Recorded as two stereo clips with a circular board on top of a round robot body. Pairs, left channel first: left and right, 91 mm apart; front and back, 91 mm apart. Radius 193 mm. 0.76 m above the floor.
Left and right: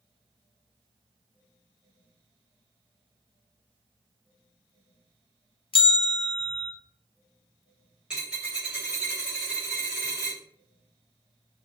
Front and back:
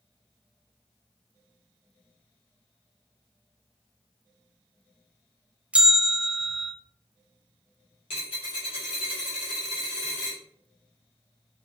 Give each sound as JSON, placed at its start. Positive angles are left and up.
{"t": 5.7, "sound": "a bell", "azimuth_deg": 105, "distance_m": 0.5}
{"t": 8.1, "sound": "a dropped coin", "azimuth_deg": -10, "distance_m": 1.2}